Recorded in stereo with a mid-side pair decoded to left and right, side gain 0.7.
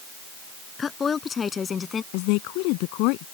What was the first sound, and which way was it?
A woman speaking, 25° left.